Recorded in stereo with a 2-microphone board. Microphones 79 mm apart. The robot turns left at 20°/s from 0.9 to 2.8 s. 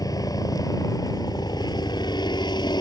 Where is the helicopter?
120° left; by 2.8 s 85° left.